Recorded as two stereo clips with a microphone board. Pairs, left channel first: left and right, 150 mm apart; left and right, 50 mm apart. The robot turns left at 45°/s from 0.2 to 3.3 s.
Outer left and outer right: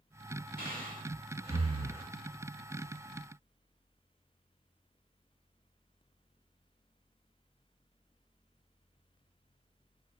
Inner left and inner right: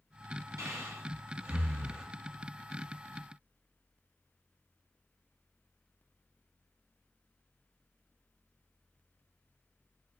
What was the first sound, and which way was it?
Breathing, 75° right (ahead or behind).